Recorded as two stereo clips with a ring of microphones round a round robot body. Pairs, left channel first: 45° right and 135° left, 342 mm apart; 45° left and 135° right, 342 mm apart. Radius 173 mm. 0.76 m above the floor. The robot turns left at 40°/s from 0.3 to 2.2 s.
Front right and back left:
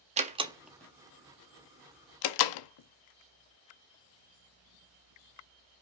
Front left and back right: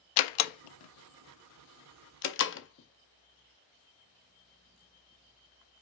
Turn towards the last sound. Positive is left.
turn(degrees=-15)